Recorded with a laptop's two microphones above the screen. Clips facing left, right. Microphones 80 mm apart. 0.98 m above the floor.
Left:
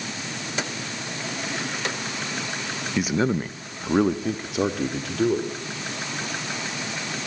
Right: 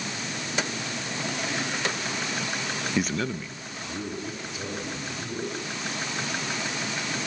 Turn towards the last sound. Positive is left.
turn(degrees=85)